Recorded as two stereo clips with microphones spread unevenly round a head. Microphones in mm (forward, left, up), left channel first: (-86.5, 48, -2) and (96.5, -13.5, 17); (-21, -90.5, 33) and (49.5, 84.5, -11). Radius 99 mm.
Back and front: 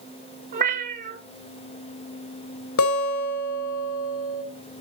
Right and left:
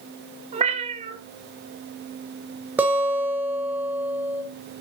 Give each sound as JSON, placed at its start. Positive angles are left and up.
{"t": 0.5, "sound": "a cat meowing", "azimuth_deg": 10, "distance_m": 1.7}
{"t": 2.8, "sound": "a guitar", "azimuth_deg": 155, "distance_m": 2.5}